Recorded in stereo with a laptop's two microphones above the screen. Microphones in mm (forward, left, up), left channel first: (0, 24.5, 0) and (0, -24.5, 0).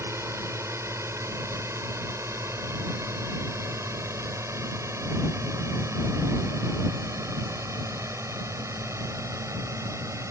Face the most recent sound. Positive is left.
turn(degrees=-80)